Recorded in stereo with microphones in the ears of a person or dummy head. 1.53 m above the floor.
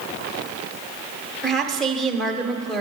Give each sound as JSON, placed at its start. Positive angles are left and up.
{"t": 1.4, "sound": "a woman speaking", "side_deg": 0, "distance_m": 1.1}